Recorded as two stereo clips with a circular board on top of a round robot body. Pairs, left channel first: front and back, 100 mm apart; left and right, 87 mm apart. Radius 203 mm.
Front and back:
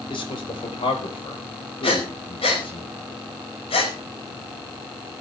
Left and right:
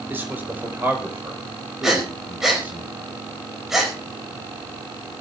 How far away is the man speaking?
About 3.5 m.